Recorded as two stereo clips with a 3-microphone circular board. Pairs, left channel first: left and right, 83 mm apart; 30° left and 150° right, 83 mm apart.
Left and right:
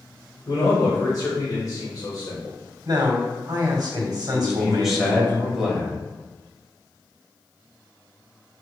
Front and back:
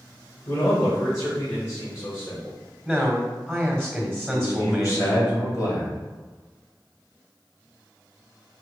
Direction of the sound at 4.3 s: 5° right.